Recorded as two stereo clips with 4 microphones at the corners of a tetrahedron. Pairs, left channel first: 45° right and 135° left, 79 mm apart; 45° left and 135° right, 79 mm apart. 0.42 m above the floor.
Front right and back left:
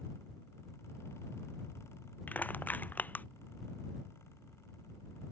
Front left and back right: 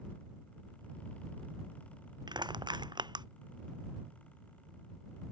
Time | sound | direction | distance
2.3 | crushing | 110° right | ?